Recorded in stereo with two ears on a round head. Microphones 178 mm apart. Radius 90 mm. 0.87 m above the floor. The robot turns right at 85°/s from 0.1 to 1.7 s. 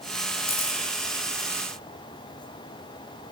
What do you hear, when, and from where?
0.5 s a camera shutter: 55° left (ahead or behind), 3 m; by 0.8 s 25° left (ahead or behind), 3 m